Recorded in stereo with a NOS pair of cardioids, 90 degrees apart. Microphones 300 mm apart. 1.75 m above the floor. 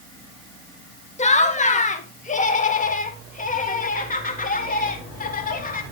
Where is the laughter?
20° left, 2 m; by 5.8 s 25° left, 4.5 m.